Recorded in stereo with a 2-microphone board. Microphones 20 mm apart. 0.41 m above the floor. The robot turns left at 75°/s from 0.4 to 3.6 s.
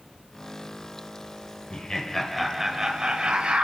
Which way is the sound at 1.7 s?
55° left.